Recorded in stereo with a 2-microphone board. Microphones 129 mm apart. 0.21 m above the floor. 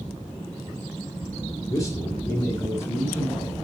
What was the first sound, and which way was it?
A man speaking, 25° left (ahead or behind).